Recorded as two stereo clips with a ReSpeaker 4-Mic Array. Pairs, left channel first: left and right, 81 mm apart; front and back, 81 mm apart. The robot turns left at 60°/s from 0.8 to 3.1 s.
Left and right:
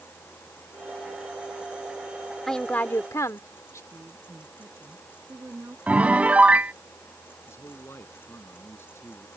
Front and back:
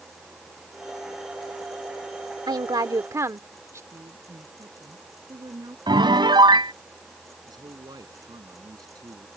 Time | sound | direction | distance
2.5 | a woman speaking | 175° left | ?
3.9 | a woman speaking | 150° right | ?
5.9 | a piano | 165° right | ?
7.5 | a man speaking | 150° left | ?